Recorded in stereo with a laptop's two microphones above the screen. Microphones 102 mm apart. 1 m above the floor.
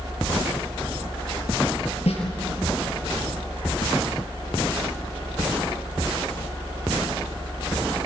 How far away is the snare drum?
About 6 m.